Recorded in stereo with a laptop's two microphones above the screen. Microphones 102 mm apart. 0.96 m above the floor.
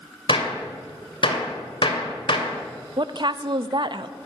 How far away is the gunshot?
About 2.5 m.